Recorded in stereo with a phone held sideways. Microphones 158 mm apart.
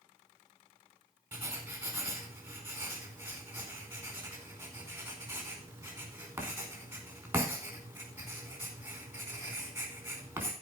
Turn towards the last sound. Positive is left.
turn(degrees=-15)  # may be behind; listen again after turning